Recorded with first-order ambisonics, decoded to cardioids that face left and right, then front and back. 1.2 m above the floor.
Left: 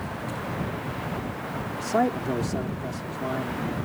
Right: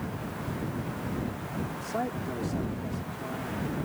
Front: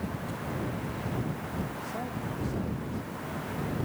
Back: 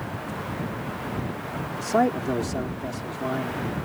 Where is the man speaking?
150° left.